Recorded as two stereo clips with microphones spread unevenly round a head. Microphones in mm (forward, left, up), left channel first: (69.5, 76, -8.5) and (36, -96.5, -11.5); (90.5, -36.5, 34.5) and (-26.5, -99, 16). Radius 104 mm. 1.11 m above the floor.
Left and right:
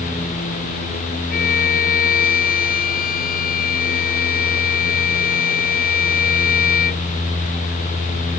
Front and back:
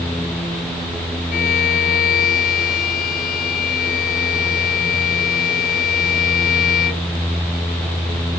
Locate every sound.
1.3 s a violin: 45° left